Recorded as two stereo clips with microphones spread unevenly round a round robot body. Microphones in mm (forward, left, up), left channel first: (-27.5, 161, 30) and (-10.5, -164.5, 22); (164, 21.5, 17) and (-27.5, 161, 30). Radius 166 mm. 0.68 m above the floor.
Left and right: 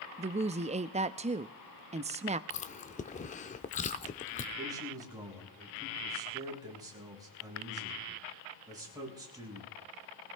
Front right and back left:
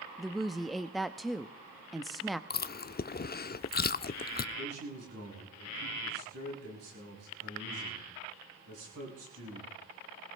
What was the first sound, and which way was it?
A woman speaking, 115° right.